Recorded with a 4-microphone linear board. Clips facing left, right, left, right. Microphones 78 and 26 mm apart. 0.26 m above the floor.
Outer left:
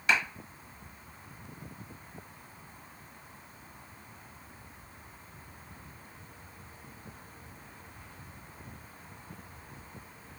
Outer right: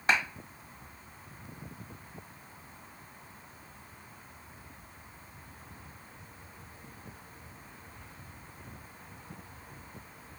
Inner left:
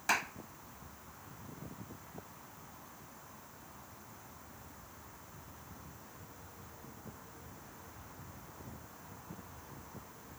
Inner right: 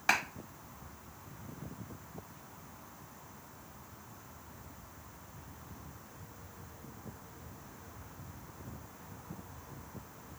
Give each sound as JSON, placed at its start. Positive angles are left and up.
{"t": 0.1, "sound": "a clap", "side_deg": -35, "distance_m": 0.9}